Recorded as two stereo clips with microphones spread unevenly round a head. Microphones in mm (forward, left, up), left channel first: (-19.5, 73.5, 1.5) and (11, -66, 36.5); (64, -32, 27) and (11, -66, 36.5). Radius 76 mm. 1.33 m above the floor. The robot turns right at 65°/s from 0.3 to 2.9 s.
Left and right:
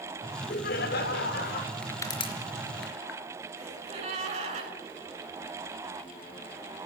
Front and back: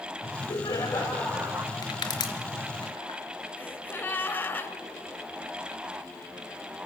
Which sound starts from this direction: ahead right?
A gasp, at 3.6 s.